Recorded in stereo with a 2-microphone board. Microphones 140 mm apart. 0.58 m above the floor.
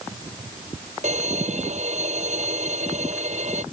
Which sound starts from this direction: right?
A violin, at 1.0 s.